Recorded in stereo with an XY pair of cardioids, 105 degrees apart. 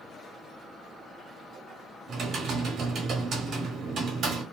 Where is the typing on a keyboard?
65° right, 1.4 m.